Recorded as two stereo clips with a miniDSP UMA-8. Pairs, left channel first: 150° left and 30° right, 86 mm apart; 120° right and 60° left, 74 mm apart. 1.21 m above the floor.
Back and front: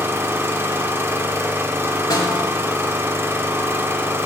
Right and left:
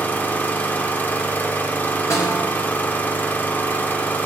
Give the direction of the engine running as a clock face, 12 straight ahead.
2 o'clock.